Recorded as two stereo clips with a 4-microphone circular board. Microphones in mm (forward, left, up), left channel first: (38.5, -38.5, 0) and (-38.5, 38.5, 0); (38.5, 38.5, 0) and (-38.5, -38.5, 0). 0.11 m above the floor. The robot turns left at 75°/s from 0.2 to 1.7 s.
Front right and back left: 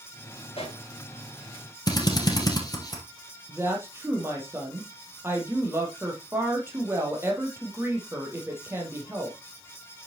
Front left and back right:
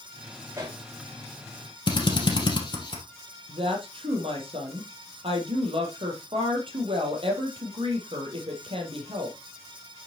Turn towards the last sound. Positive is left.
turn(degrees=-160)